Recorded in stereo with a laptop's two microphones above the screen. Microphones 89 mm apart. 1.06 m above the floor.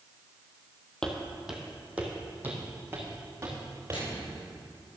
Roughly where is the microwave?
Left.